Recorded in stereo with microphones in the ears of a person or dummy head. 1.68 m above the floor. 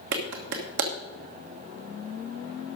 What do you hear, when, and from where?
0.1 s a clap: 60° right (ahead or behind), 1.4 m